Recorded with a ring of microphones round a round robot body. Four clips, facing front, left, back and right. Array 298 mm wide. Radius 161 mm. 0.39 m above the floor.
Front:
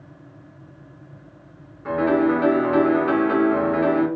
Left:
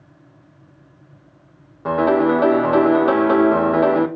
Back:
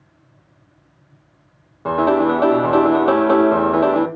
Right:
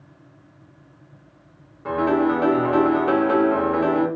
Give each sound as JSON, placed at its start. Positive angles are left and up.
{"t": 1.9, "sound": "a piano", "azimuth_deg": 145, "distance_m": 0.5}